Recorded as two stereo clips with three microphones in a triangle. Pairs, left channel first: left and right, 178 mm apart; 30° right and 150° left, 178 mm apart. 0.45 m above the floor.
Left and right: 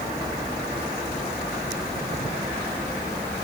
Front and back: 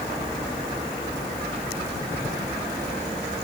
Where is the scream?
I don't hear a scream.